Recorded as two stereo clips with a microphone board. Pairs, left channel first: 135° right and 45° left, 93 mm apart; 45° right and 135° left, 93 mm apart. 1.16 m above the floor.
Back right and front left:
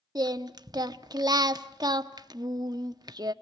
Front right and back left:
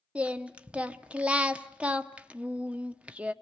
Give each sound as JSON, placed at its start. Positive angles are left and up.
{"t": 0.1, "sound": "singing", "azimuth_deg": 60, "distance_m": 0.8}